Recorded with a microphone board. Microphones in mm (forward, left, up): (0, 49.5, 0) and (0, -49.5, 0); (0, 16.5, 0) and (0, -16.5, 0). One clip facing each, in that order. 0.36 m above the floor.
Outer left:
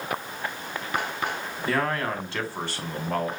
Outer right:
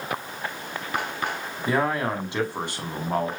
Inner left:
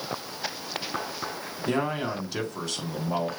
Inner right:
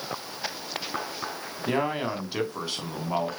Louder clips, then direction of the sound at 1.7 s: Outer right 2 dB, inner right 1 dB; 15° right (ahead or behind).